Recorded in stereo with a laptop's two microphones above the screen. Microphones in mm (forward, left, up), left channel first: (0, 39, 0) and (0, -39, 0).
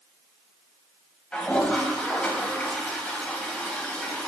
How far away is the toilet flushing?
About 0.9 m.